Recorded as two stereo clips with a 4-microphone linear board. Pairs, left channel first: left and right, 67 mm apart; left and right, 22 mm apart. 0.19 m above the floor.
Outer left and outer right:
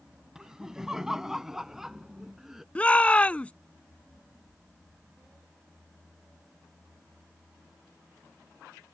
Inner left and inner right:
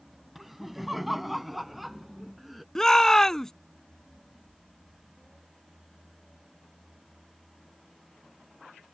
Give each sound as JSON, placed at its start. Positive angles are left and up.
{"t": 0.3, "sound": "laughter", "side_deg": -10}
{"t": 2.8, "sound": "a shout", "side_deg": 20}